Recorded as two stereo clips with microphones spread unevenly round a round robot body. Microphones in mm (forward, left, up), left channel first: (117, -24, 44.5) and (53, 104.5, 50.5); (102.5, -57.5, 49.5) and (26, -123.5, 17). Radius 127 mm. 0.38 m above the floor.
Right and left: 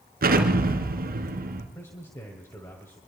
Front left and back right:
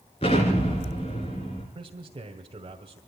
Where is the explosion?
105° left, 3 m.